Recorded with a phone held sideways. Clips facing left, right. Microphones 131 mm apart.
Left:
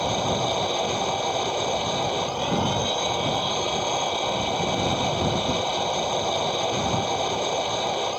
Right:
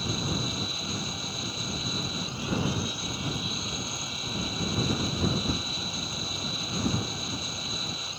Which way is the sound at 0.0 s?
65° left (ahead or behind).